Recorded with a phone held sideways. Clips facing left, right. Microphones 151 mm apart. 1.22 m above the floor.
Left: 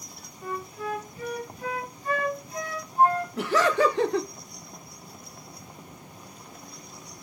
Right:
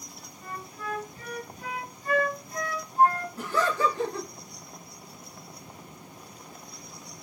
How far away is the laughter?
About 0.6 m.